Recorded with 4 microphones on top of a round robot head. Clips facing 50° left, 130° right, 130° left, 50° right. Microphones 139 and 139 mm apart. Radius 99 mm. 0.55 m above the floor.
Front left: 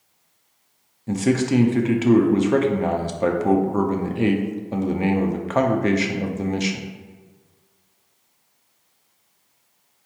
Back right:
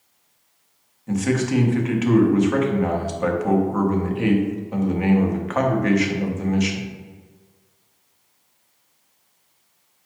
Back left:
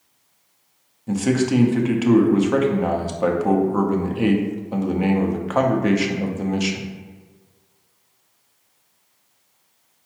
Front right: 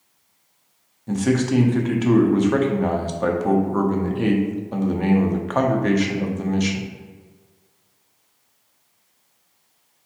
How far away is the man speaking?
About 0.7 m.